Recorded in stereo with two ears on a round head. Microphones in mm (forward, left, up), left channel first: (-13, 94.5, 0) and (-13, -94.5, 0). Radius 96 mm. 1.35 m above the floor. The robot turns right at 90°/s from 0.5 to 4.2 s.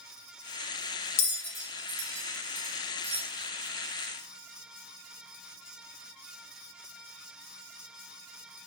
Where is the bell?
30° left (ahead or behind), 1.0 m; by 3.2 s 25° right (ahead or behind), 1.0 m.